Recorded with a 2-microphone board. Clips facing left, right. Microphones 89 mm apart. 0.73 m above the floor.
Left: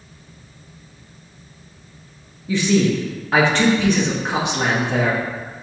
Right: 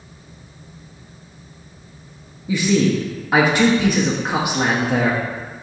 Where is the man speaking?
10° right (ahead or behind), 0.5 m.